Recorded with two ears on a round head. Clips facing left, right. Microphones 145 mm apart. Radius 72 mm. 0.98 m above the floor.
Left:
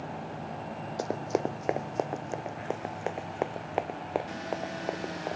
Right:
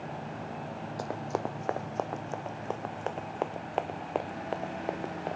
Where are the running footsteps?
30° left (ahead or behind); by 5.4 s 5° left (ahead or behind).